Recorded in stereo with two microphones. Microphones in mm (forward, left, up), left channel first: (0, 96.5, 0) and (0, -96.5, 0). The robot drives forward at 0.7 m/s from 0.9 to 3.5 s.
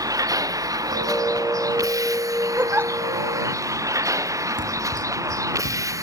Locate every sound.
0.0 s a vehicle: 20° right (ahead or behind); by 6.0 s 15° right (ahead or behind)
2.6 s a giggle: 10° right (ahead or behind)
4.6 s running footsteps: 85° right